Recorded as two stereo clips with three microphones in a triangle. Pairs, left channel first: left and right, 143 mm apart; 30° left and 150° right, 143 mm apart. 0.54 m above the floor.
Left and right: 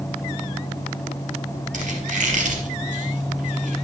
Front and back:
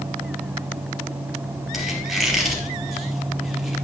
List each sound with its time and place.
1.7 s a squeak: 60° right, 3 m